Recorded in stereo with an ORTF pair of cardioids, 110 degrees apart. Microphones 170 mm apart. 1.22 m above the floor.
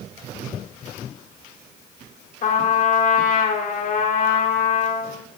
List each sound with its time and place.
2.4 s a trumpet: 55° left, 3.5 m